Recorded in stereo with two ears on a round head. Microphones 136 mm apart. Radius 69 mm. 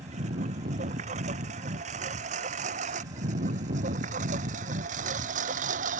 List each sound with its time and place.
0.0 s a lawn mower: 50° right (ahead or behind); by 6.0 s 55° right (ahead or behind)